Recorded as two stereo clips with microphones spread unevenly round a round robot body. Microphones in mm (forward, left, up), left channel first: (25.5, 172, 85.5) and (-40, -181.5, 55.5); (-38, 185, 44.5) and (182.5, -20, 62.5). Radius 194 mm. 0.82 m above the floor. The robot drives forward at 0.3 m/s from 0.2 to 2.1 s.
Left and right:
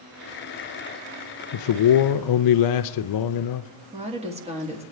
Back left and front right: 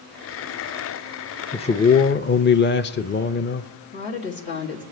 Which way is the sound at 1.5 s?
65° left.